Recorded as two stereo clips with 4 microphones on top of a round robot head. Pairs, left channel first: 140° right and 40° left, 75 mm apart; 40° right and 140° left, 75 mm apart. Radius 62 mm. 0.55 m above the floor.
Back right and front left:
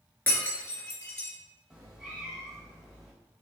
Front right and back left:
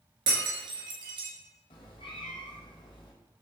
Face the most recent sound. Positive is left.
turn(degrees=-40)